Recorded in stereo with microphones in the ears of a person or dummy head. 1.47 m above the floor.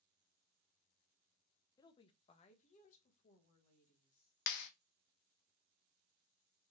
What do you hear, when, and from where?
1.8 s a woman speaking: 25° left (ahead or behind), 0.6 m; by 4.3 s 50° left (ahead or behind), 1.8 m
4.5 s a clap: 60° left (ahead or behind), 0.6 m